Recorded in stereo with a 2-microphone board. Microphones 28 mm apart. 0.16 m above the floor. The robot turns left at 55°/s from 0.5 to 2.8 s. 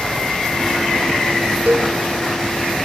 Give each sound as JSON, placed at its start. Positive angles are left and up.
{"t": 1.7, "sound": "a cowbell", "side_deg": -65, "distance_m": 3.0}